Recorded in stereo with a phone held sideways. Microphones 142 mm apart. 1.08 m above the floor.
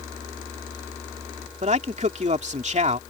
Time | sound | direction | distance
1.6 | a man speaking | 55° right (ahead or behind) | ?